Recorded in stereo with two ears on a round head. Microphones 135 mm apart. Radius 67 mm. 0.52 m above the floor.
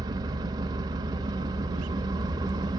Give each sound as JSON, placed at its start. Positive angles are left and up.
{"t": 0.0, "sound": "an engine running", "side_deg": -25, "distance_m": 0.9}